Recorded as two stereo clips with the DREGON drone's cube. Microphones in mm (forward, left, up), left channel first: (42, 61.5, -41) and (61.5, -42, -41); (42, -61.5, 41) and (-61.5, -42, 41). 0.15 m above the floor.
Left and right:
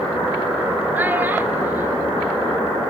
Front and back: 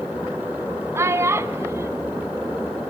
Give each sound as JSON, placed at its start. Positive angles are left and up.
{"t": 0.9, "sound": "a child speaking", "azimuth_deg": -140, "distance_m": 1.1}